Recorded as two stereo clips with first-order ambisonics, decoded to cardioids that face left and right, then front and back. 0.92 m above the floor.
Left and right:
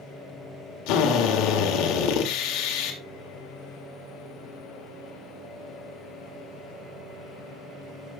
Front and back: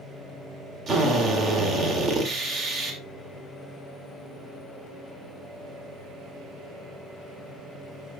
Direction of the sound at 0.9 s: 120° left.